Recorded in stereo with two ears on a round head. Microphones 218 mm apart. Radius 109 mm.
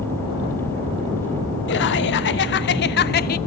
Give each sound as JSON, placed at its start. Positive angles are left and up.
{"t": 1.7, "sound": "laughter", "side_deg": 50, "distance_m": 1.7}